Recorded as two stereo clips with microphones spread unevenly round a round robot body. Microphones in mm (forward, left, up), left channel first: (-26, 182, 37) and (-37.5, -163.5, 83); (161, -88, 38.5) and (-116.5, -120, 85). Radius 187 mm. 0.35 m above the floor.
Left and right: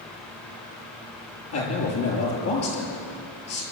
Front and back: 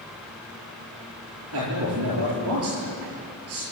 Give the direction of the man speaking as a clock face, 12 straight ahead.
8 o'clock.